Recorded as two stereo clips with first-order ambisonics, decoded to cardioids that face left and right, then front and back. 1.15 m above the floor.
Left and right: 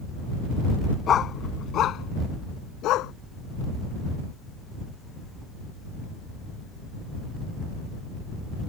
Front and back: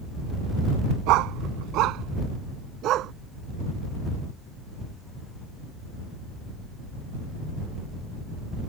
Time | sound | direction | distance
1.1 | a dog barking | 150° left | ?